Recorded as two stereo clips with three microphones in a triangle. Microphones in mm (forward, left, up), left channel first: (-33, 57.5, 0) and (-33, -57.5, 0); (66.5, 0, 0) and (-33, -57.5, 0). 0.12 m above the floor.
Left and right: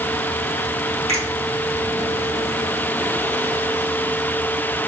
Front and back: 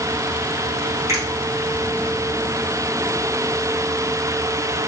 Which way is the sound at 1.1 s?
90° right.